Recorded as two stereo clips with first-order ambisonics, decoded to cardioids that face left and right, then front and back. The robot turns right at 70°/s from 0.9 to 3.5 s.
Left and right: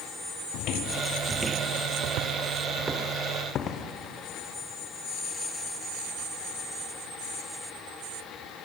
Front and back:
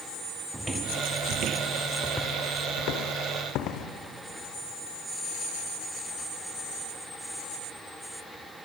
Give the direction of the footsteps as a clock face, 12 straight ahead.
9 o'clock.